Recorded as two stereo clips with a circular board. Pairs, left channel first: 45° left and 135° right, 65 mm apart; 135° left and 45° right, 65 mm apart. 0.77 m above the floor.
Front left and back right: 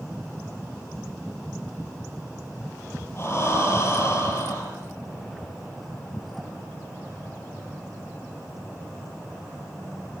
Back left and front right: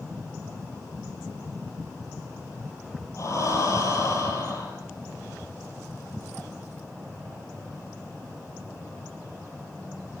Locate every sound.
3.2 s breathing: 95° left, 7 m